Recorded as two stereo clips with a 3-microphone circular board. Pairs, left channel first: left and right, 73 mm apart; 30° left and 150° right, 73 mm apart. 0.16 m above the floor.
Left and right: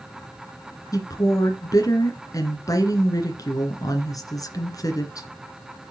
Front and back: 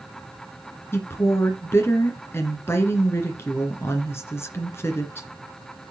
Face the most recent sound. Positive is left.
turn(degrees=75)